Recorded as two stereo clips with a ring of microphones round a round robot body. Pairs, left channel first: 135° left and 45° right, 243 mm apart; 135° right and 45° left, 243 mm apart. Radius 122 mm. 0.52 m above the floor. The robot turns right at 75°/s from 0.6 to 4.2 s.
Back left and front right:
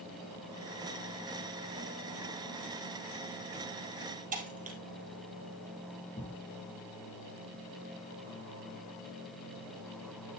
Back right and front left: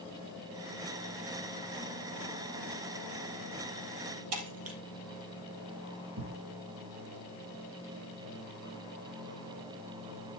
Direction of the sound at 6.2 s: 60° left.